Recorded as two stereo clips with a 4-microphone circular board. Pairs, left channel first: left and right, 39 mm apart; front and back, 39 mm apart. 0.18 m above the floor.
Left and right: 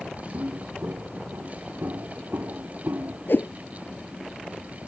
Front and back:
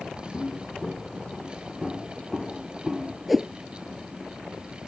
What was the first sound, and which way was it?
Footsteps, 70° right.